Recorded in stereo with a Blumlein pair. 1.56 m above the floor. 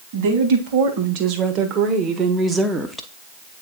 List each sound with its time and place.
0.1 s a woman speaking: 50° right, 2.0 m; by 3.1 s 5° left, 0.9 m